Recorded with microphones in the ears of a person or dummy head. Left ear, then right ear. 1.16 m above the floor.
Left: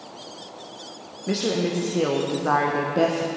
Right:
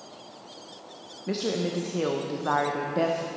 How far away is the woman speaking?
About 0.6 m.